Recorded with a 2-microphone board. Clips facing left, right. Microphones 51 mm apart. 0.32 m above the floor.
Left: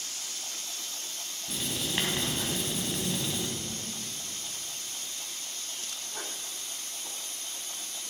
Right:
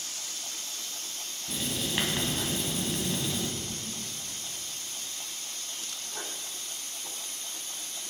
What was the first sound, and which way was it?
Writing, centre (ahead or behind).